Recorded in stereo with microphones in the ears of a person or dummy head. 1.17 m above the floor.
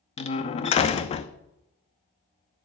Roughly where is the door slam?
Left.